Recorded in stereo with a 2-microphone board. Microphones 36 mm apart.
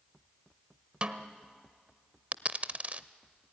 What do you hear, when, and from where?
1.0 s a snare drum: 30° right (ahead or behind), 1.2 m
2.3 s a dropped coin: 40° right (ahead or behind), 0.6 m